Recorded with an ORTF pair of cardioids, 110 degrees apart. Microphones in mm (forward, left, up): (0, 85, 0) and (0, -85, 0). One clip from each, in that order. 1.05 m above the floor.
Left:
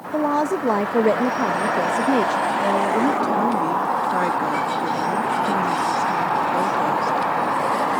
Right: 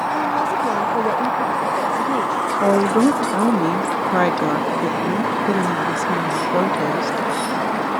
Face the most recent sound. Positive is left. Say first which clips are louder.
# right 6 dB
turn(degrees=-40)